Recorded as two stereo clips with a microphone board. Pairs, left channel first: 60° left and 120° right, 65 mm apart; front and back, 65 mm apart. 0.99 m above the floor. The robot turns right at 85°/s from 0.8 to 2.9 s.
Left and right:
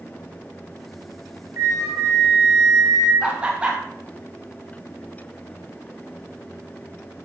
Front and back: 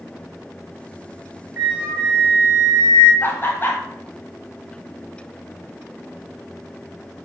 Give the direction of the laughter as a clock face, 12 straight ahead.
2 o'clock.